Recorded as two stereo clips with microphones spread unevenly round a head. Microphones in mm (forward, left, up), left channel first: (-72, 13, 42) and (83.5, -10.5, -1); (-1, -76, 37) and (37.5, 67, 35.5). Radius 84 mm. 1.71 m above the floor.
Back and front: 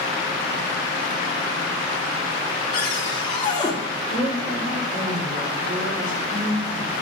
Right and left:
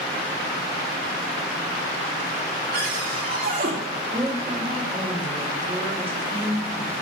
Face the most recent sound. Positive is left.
turn(degrees=25)